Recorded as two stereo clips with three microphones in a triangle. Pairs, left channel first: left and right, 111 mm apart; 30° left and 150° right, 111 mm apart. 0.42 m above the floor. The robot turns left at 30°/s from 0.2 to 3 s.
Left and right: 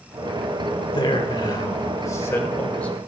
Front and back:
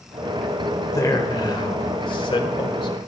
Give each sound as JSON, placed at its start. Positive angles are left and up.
{"t": 0.9, "sound": "a man speaking", "azimuth_deg": 75, "distance_m": 1.4}